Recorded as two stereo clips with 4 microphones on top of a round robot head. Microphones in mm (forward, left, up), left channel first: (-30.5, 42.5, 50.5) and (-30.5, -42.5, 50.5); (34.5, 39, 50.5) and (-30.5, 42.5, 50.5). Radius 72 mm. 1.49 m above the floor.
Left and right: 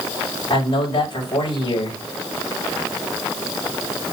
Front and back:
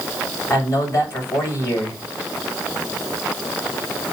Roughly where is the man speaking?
Ahead left.